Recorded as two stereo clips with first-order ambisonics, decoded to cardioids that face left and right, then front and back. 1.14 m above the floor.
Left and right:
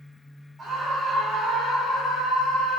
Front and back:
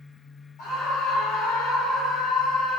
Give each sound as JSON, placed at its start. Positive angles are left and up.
{"t": 0.6, "sound": "a scream", "azimuth_deg": -10, "distance_m": 1.2}